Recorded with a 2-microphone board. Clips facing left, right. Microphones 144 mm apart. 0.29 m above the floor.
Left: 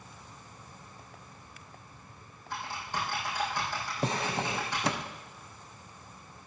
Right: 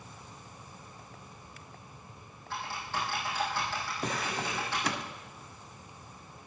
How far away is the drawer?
About 0.8 m.